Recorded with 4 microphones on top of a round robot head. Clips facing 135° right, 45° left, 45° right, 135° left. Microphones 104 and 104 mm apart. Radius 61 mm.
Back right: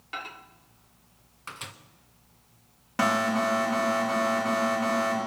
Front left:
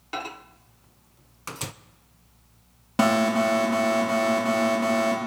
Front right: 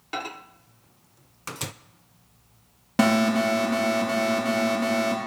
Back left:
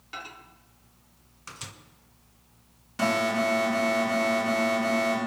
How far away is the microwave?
About 0.6 m.